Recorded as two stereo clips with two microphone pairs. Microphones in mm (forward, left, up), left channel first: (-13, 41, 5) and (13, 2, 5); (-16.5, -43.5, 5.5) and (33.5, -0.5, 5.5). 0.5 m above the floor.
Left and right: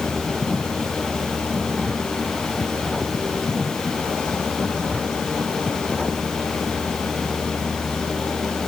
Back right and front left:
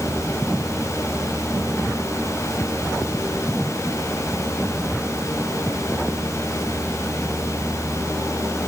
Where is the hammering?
No hammering in this recording.